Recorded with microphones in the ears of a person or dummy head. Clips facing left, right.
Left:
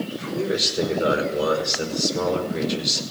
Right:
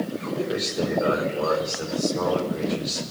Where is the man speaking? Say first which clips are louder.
Left 2 dB; 35° left (ahead or behind), 5 m.